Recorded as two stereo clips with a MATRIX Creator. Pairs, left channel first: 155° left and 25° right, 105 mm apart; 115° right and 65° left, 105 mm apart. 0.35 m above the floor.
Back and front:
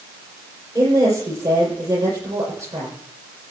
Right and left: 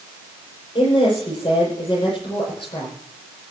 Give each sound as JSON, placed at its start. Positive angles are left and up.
{"t": 0.8, "sound": "a woman speaking", "azimuth_deg": -80, "distance_m": 10.0}